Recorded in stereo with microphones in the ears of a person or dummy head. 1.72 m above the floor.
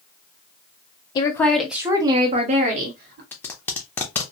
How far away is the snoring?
I don't hear snoring.